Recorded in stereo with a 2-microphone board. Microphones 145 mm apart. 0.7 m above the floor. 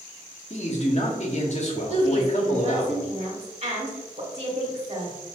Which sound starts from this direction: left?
A man speaking, at 0.5 s.